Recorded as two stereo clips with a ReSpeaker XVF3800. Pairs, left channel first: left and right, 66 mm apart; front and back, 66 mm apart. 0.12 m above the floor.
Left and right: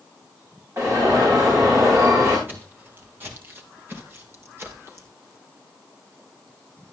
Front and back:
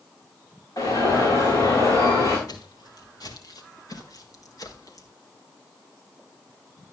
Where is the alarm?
40° right, 9.5 m.